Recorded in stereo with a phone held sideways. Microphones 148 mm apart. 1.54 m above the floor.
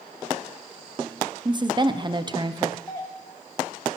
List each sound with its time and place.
1.4 s a woman speaking: 30° right (ahead or behind), 0.5 m
2.9 s a doorbell: 25° left (ahead or behind), 1.6 m